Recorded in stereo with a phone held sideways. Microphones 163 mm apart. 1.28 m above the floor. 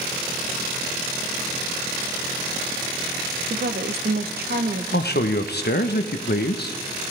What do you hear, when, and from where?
3.5 s a woman speaking: 75° right (ahead or behind), 0.7 m
4.9 s a man speaking: 80° left, 0.8 m